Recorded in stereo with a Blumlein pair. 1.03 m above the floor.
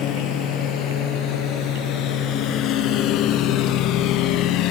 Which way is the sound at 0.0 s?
30° left.